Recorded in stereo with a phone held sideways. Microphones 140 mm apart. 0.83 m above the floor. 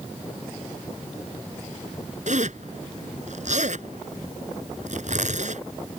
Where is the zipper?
65° right (ahead or behind).